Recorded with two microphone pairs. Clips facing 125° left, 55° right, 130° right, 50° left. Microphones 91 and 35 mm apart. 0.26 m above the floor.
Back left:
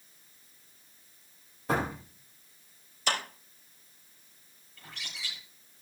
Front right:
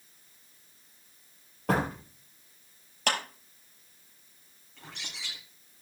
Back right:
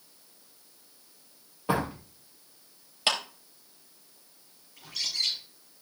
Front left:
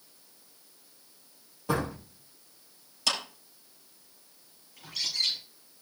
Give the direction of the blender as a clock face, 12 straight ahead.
I don't hear a blender.